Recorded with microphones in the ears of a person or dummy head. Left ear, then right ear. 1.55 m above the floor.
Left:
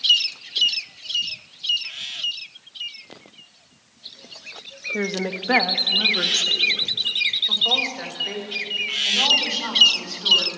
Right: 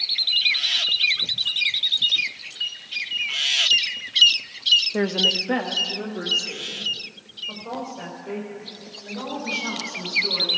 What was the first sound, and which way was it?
A woman speaking, 20° right (ahead or behind).